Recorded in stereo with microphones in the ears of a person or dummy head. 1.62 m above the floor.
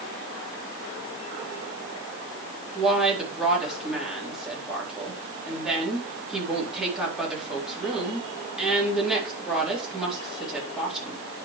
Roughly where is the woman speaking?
Centre.